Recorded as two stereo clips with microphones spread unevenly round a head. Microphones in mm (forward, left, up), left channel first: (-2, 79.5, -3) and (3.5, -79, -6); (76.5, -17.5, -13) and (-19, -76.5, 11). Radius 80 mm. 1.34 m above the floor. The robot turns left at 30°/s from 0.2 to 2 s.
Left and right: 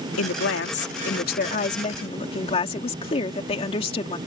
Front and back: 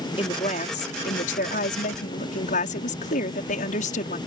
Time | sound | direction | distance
0.2 | a woman speaking | 90° left | ?